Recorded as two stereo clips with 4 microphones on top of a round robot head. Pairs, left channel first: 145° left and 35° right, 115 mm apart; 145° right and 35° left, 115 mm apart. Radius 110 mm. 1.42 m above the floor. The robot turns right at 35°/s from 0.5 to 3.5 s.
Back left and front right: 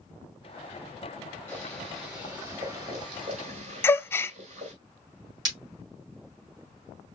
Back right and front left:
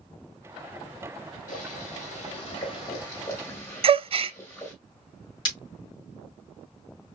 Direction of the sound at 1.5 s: 145° right.